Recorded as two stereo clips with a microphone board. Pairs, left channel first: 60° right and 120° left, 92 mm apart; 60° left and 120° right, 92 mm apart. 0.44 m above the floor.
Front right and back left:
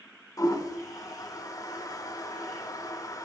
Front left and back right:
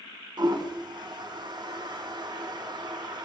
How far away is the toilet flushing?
About 0.6 m.